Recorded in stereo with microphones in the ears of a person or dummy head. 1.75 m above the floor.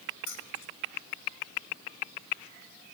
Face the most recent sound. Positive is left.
turn(degrees=80)